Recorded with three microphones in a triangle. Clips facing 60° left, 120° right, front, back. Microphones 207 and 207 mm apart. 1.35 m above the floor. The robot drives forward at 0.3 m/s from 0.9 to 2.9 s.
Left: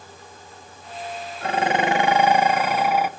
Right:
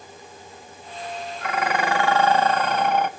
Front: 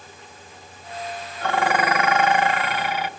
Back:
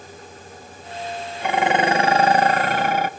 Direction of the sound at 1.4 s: 105° left.